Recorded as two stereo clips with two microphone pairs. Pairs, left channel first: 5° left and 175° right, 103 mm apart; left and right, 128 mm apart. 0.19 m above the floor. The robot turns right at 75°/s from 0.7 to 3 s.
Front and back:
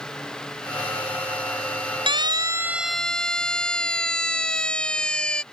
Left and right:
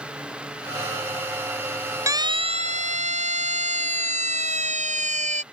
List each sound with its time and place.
2.1 s a siren: 155° right; by 5.4 s 75° right